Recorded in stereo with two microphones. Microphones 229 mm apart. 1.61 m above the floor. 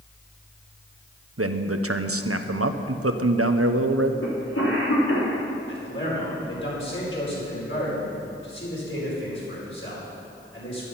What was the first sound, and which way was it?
A man speaking, 75° right (ahead or behind).